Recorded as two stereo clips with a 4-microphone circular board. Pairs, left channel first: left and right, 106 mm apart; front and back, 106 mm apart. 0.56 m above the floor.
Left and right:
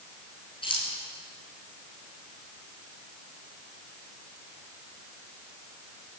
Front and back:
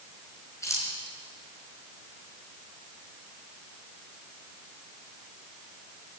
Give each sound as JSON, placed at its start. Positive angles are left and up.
{"t": 0.6, "sound": "keys jangling", "azimuth_deg": 60, "distance_m": 4.5}